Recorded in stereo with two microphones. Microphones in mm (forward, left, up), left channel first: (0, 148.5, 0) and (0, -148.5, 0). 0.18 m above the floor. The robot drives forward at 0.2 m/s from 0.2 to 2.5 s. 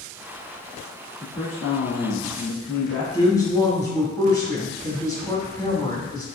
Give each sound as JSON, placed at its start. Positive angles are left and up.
{"t": 1.2, "sound": "a man speaking", "side_deg": 55, "distance_m": 1.8}
{"t": 3.1, "sound": "a woman speaking", "side_deg": 10, "distance_m": 1.1}